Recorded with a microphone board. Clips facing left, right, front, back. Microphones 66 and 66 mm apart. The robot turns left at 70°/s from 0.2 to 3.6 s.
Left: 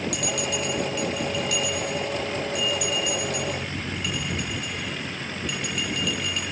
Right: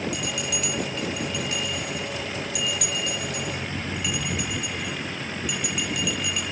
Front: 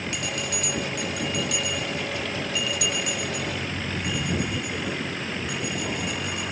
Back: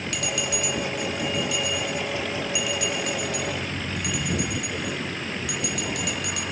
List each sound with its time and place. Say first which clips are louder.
0.1 s a bell: left 2 dB, back 2 dB; 60° left, 5.5 m; by 6.4 s 175° right, 5.5 m